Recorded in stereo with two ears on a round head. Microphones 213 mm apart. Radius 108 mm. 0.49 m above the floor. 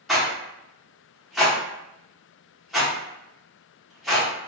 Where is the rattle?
Centre (ahead or behind), 1.0 m.